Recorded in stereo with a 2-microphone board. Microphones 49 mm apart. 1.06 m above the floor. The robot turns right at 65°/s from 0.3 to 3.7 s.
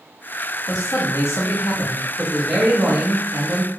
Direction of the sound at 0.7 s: 70° left.